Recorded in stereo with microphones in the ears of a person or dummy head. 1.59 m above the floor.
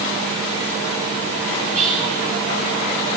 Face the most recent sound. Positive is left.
turn(degrees=-45)  # may be behind; listen again after turning